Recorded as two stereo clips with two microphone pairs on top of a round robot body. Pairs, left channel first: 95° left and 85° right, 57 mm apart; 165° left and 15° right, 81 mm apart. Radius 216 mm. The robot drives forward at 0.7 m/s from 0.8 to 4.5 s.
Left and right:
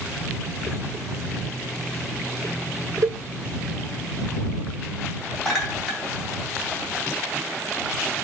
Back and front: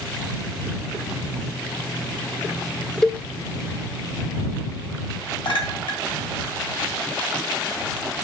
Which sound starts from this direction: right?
A cowbell, at 3.0 s.